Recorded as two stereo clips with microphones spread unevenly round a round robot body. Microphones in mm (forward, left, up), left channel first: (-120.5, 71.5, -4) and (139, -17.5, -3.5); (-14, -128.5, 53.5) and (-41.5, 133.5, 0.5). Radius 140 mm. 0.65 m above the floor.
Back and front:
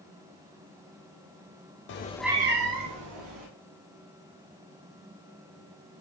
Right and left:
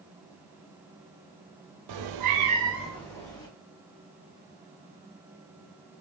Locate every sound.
1.9 s a cat meowing: 115° left, 0.7 m; by 3.5 s 10° right, 1.6 m